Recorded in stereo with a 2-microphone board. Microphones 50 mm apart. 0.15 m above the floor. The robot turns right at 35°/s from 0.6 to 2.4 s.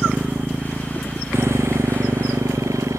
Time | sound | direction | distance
0.0 | a motorcycle | 35° right (ahead or behind) | ?